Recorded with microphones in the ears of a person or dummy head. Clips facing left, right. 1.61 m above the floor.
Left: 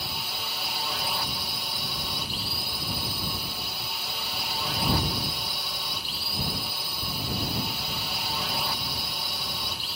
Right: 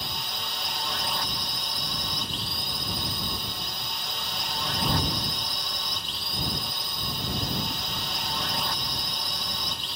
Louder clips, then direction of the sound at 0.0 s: Even; 5° left (ahead or behind).